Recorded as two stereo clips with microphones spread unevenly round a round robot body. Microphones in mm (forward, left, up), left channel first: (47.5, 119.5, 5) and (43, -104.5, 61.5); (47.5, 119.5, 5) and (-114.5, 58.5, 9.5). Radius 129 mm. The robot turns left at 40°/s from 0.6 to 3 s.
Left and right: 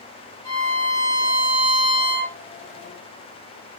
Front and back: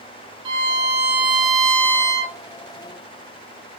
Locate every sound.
0.5 s a violin: 150° left, 1.2 m; by 2.4 s 80° left, 1.2 m